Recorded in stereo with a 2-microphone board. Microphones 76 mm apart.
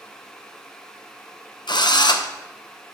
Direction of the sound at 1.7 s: 75° left (ahead or behind).